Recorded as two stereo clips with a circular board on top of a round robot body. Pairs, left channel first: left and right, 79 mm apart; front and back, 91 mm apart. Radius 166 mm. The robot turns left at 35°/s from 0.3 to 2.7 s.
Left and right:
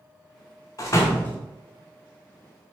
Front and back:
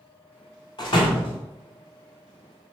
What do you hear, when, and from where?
0.8 s a door slam: 40° left, 1.1 m; by 1.4 s 20° left, 1.1 m